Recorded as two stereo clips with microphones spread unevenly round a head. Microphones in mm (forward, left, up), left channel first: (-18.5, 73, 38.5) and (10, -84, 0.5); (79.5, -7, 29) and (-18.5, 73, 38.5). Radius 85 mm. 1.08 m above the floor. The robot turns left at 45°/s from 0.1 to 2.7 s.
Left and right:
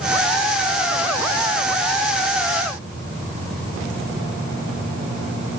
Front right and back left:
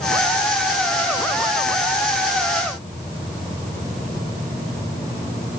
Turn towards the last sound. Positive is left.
No sound to turn to.